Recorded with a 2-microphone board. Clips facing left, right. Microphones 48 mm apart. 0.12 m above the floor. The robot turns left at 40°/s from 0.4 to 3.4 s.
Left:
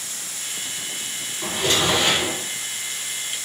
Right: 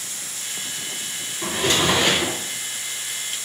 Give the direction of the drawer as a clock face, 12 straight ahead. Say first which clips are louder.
Right 1 dB; 2 o'clock.